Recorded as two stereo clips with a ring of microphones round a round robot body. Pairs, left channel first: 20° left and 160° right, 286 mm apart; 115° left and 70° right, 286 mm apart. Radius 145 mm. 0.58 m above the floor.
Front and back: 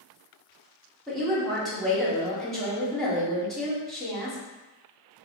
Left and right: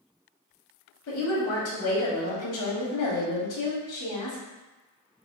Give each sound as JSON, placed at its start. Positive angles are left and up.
{"t": 1.1, "sound": "a woman speaking", "azimuth_deg": 110, "distance_m": 1.7}